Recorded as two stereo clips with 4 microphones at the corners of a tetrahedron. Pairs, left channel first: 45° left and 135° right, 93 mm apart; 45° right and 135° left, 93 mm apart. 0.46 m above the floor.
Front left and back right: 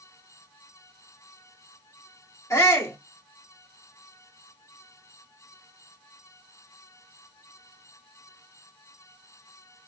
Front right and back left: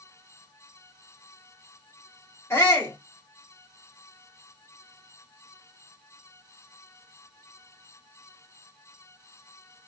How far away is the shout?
About 1.7 m.